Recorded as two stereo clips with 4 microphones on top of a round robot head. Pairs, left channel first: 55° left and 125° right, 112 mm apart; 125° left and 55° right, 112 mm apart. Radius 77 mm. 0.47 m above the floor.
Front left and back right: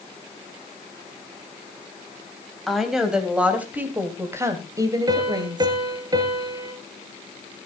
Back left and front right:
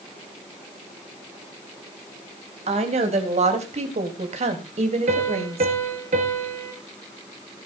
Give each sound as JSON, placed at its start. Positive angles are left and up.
{"t": 2.7, "sound": "a woman speaking", "azimuth_deg": -35, "distance_m": 3.5}
{"t": 5.1, "sound": "a piano", "azimuth_deg": -70, "distance_m": 2.5}